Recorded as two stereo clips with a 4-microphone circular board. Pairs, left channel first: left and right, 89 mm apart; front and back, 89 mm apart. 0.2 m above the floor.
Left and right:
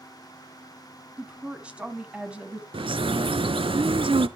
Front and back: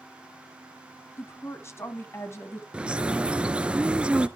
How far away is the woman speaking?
About 1.2 m.